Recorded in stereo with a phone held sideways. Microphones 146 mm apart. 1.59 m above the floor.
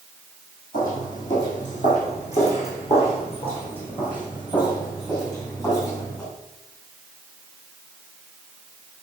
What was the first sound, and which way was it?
Footsteps, 60° left (ahead or behind).